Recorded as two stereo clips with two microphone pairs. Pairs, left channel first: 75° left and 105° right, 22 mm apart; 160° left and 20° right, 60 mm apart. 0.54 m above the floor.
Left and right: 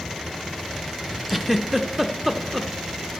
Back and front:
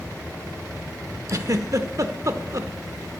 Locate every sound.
1.3 s a giggle: 15° right, 0.6 m